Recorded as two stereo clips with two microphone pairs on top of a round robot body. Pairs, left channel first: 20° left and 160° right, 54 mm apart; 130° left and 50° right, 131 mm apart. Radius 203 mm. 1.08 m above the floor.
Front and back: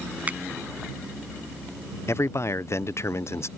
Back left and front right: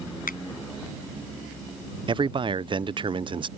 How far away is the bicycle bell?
No bicycle bell in this recording.